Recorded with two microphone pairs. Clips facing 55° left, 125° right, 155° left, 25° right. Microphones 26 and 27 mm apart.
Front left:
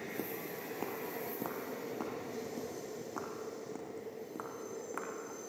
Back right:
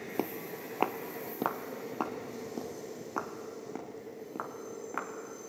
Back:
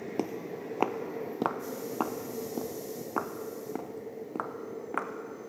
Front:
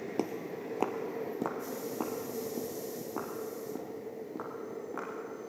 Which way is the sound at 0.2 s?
120° right.